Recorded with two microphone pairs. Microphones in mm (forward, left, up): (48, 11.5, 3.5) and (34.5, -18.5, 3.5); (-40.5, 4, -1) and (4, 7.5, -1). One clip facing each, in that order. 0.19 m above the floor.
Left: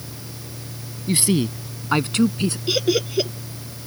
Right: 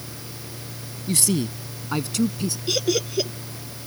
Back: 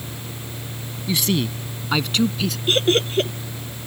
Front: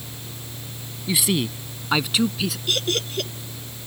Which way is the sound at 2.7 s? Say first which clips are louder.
Left 2 dB, back 9 dB; 135° left.